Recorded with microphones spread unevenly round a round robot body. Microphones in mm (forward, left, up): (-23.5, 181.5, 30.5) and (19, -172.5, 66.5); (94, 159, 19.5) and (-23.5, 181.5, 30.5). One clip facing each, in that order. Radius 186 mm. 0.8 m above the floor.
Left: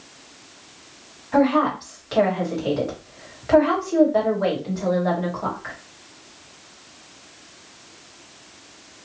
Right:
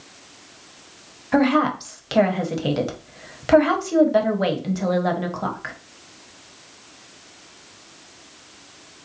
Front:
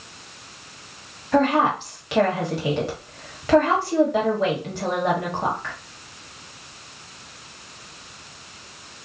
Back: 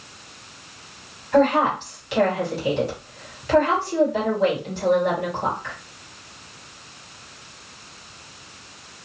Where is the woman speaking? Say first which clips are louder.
Even, back 1 dB; 50° right, 1.1 m.